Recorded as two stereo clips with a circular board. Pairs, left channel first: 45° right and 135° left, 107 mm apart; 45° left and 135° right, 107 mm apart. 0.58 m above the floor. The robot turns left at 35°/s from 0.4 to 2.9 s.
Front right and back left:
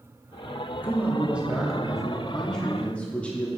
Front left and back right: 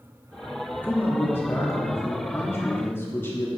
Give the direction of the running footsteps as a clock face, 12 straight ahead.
I don't hear running footsteps.